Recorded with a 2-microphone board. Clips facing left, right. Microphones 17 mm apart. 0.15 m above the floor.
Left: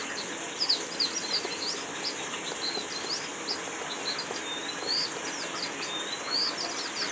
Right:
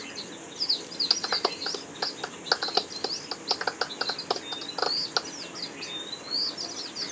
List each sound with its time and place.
0.0 s running water: 30° left (ahead or behind)
1.1 s a clap: 75° right (ahead or behind)